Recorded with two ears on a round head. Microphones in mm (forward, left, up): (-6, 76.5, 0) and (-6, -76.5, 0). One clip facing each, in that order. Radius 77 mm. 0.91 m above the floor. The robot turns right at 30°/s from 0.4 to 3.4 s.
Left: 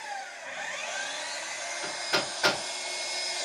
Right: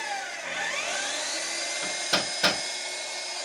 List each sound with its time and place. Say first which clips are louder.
0.0 s an engine running: right 4 dB; 80° right, 1.2 m; by 3.5 s 10° left, 1.2 m
1.8 s hammering: even; 55° right (ahead or behind), 5 m; by 2.6 s 30° right (ahead or behind), 5 m